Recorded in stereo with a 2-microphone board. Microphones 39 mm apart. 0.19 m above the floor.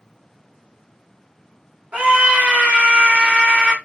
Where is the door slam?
No door slam in this recording.